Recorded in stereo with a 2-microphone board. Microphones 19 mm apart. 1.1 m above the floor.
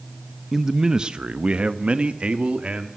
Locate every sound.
0.5 s a man speaking: 15° right (ahead or behind), 0.9 m; by 2.9 s 85° right, 2 m